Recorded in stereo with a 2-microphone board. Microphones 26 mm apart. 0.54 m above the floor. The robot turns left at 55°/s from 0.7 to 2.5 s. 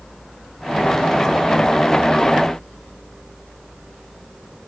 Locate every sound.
Only background noise.